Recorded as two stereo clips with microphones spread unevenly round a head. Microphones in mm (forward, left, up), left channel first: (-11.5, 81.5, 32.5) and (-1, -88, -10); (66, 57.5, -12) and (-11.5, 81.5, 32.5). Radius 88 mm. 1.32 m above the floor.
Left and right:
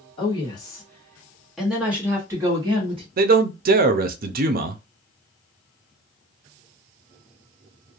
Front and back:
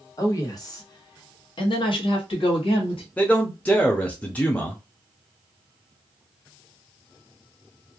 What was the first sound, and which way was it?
A woman speaking, 35° left.